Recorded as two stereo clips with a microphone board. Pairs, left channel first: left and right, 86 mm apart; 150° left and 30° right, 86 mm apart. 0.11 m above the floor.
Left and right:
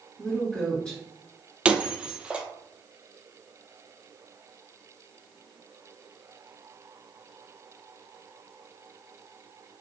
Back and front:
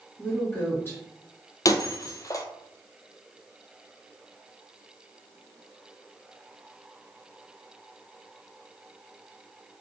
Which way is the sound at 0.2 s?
155° left.